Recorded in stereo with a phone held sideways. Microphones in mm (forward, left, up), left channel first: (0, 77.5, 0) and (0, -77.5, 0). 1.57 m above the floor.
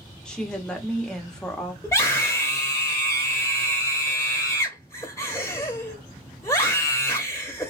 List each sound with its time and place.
0.2 s a woman speaking: 5° left (ahead or behind), 1.0 m
1.8 s a scream: 20° left (ahead or behind), 0.7 m